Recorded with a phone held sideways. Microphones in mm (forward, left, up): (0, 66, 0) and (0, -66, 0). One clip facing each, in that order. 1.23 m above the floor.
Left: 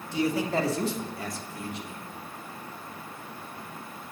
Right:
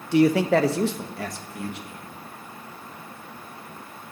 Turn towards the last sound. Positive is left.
turn(degrees=-65)  # may be behind; listen again after turning